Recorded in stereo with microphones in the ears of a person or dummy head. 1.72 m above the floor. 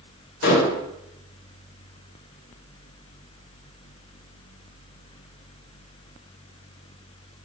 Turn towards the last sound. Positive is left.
turn(degrees=70)  # may be behind; listen again after turning